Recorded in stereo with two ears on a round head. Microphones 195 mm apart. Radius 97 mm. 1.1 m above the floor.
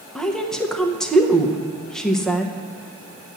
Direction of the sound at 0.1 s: 5° left (ahead or behind).